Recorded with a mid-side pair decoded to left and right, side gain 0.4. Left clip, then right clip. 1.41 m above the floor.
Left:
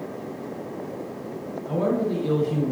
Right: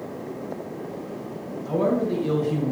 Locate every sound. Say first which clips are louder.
1.7 s a man speaking: right 1 dB; 15° right, 1.6 m